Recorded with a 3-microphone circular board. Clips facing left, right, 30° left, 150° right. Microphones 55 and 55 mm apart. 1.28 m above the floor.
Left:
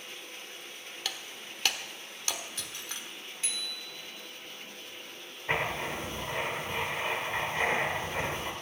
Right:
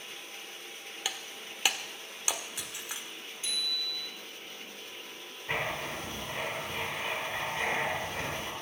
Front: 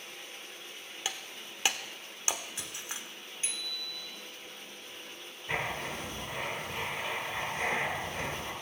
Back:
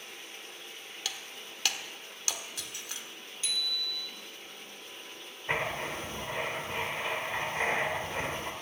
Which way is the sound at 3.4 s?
85° left.